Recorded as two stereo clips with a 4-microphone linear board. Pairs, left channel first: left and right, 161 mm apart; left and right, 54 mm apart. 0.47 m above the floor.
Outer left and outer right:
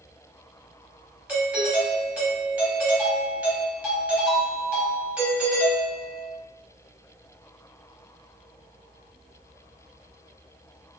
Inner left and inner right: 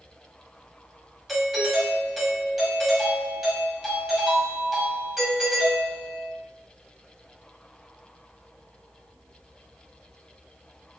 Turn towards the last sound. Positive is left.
turn(degrees=-10)  # may be behind; listen again after turning